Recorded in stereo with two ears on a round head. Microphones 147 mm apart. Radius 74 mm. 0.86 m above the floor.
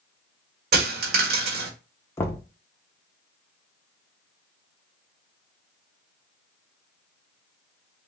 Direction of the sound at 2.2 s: 15° left (ahead or behind).